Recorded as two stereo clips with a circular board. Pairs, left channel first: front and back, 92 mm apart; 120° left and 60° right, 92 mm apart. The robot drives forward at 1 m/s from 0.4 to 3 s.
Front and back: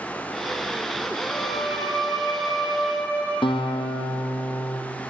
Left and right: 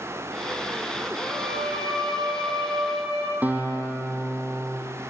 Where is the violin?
55° right, 10 m; by 3.3 s 65° right, 9 m.